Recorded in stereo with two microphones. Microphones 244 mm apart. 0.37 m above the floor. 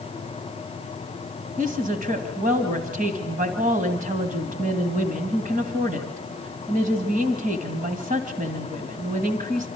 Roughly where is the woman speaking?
Right.